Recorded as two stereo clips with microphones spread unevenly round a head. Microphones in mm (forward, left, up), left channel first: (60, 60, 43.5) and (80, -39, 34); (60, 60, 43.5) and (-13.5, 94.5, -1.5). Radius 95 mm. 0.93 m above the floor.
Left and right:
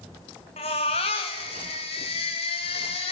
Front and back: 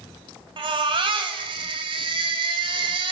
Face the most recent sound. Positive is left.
turn(degrees=150)